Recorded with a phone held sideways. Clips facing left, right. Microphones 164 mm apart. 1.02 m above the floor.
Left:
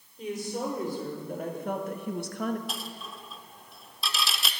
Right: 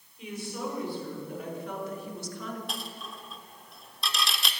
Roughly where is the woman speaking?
Left.